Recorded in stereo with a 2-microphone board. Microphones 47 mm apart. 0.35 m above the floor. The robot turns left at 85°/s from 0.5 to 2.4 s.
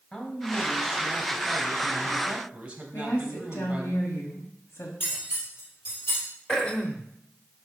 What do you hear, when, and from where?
0.1 s a man speaking: 10° left, 1.9 m; by 3.9 s 155° right, 1.9 m
2.9 s a woman speaking: 60° left (ahead or behind), 2 m
5.0 s cutlery clinking: 45° left (ahead or behind), 4.5 m
6.5 s throat clearing: 15° left (ahead or behind), 0.9 m